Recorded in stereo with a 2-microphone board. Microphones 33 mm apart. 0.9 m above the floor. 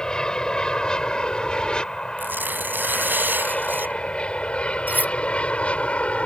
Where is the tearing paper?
80° right.